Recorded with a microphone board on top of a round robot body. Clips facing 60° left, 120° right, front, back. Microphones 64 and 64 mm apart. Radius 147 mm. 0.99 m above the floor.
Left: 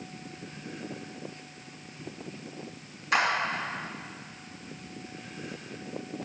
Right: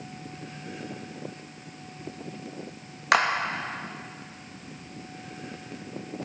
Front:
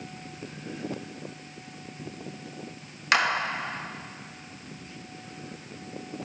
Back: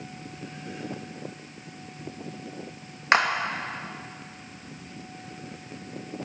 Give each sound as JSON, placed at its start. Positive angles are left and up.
{"t": 3.1, "sound": "a clap", "azimuth_deg": -120, "distance_m": 1.5}